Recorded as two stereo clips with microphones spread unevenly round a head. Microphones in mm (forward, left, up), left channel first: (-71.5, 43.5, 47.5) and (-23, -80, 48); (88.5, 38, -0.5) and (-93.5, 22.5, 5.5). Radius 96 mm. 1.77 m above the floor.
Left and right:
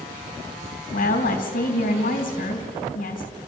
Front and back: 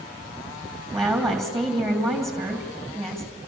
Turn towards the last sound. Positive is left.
turn(degrees=95)